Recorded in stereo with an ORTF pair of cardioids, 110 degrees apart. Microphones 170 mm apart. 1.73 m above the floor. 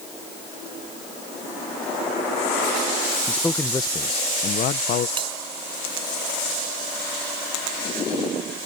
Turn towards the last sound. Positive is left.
turn(degrees=-30)